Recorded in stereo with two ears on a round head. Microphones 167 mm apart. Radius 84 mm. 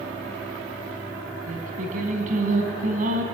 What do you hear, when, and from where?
1.5 s singing: 45° right (ahead or behind), 4 m